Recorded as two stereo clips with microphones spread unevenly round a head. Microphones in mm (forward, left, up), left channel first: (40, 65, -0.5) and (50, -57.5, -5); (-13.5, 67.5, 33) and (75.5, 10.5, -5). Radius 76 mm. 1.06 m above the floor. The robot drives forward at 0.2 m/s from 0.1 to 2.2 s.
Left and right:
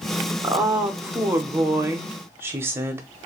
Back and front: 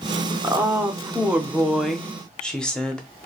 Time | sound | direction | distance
0.4 | a woman speaking | 25° right | 0.7 m